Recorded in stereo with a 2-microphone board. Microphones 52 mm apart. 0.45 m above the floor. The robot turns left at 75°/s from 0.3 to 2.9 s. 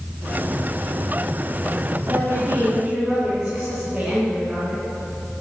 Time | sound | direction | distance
2.1 | a woman speaking | 100° right | 4 m